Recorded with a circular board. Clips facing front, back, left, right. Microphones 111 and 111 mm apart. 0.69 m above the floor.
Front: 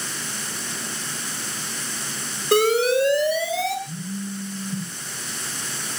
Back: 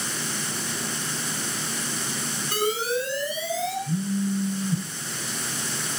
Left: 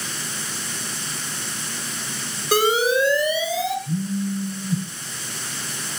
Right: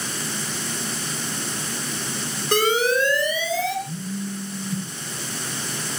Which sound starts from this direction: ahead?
An alarm, at 2.5 s.